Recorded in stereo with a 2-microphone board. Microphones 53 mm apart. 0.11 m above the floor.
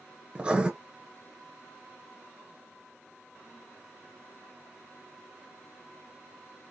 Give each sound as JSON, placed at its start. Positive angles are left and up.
{"t": 0.3, "sound": "writing", "side_deg": -20, "distance_m": 0.9}